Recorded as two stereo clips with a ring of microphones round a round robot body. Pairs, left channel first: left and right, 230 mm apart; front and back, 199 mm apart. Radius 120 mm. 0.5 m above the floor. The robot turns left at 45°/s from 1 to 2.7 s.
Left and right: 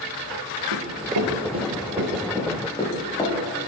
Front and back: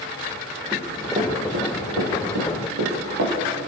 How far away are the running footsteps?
About 3.5 m.